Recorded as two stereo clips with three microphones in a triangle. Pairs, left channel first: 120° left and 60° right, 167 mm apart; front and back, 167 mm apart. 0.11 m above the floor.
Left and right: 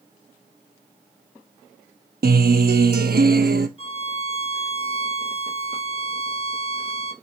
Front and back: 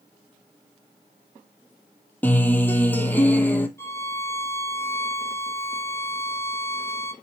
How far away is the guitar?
About 0.8 m.